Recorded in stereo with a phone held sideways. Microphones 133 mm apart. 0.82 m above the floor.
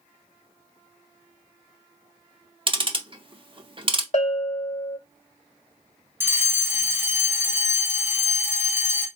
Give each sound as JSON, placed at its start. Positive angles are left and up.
{"t": 2.7, "sound": "ticking", "side_deg": -40, "distance_m": 0.7}
{"t": 4.1, "sound": "a bell", "side_deg": 65, "distance_m": 1.0}
{"t": 6.2, "sound": "a fire alarm", "side_deg": -15, "distance_m": 1.3}